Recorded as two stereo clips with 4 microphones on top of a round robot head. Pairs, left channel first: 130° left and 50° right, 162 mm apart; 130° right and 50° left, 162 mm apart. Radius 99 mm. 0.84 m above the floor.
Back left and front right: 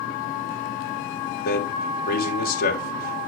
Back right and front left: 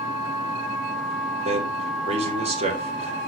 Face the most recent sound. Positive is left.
turn(degrees=100)